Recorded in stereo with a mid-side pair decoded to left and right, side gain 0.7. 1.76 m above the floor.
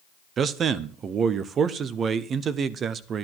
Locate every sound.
0.4 s a man speaking: 40° right, 1.0 m